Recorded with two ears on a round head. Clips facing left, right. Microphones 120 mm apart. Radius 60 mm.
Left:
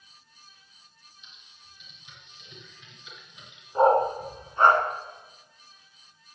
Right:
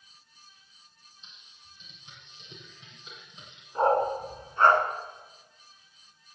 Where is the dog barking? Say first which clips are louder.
Left 4 dB; 15° left (ahead or behind), 2 m.